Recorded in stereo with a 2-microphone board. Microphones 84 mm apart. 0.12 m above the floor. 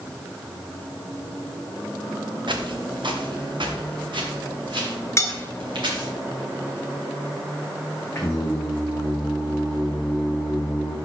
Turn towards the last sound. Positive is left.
turn(degrees=35)  # may be behind; listen again after turning